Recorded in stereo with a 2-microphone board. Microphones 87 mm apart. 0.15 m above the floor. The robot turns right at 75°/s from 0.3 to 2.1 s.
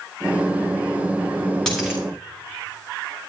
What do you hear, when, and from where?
1.7 s a dropped coin: 5° left (ahead or behind), 2 m; by 2.0 s 20° right (ahead or behind), 2 m